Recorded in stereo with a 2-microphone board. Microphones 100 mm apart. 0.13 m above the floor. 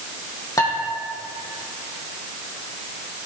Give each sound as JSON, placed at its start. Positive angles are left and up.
{"t": 0.6, "sound": "dishes clattering", "side_deg": 35, "distance_m": 4.0}